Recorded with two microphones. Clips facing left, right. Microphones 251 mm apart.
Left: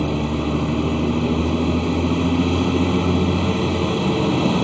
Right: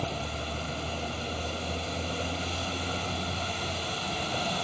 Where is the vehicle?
75° left (ahead or behind).